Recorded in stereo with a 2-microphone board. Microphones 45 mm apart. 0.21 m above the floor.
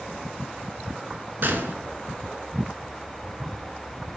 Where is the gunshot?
55° right (ahead or behind), 0.5 m.